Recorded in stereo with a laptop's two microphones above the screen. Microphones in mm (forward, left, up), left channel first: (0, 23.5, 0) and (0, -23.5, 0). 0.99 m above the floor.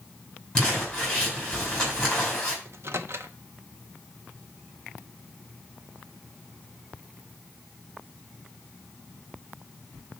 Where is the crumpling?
15° left (ahead or behind), 2.5 m.